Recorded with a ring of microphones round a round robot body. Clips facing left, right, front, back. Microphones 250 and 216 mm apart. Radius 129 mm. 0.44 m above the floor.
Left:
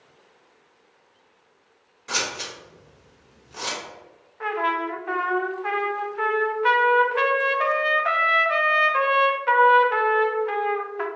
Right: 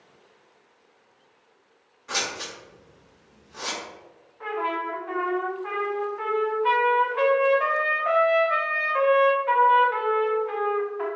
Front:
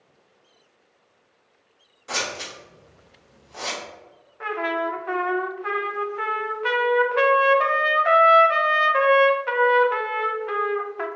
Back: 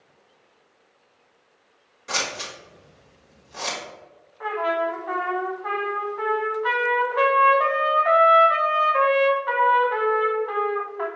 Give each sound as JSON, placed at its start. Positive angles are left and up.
{"t": 2.1, "sound": "scissors", "azimuth_deg": 115, "distance_m": 1.6}
{"t": 4.4, "sound": "a trumpet", "azimuth_deg": 60, "distance_m": 0.6}